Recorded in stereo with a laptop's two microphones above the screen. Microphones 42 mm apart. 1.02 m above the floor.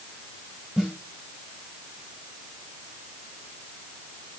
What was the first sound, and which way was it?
A snare drum, 20° right (ahead or behind).